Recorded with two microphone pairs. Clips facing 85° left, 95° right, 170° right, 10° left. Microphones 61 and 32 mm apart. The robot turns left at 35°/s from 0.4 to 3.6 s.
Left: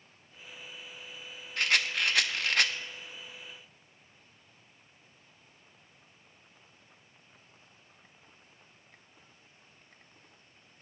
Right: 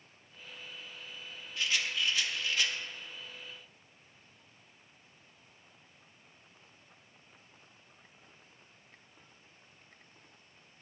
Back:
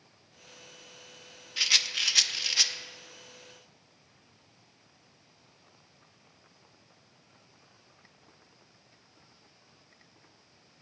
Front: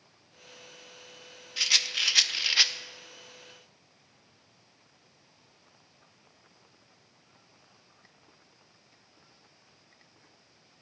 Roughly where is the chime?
No chime in this recording.